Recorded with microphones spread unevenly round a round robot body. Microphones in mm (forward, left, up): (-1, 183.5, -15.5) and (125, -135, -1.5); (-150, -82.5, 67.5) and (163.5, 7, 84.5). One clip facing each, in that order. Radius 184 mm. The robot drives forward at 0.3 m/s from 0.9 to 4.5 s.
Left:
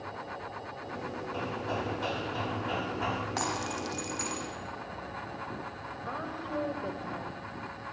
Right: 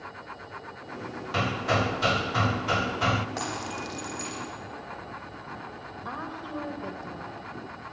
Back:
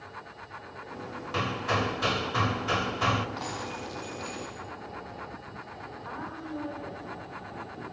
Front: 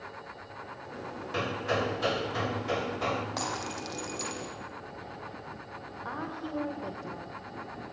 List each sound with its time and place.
1.3 s hammering: 85° right, 1.4 m; by 3.3 s 110° right, 1.5 m
3.4 s breaking glass: 40° left, 7 m; by 4.5 s 45° left, 7 m
6.0 s a woman speaking: straight ahead, 3 m